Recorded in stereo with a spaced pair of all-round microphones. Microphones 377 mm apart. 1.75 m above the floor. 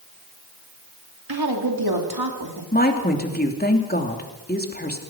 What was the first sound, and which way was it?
A woman speaking, 75° right (ahead or behind).